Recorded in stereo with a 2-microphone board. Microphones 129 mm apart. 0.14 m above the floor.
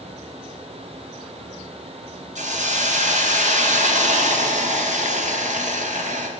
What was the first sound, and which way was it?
A hiss, 75° right (ahead or behind).